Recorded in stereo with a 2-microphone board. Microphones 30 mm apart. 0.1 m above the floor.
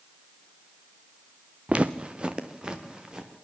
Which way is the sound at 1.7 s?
45° right (ahead or behind).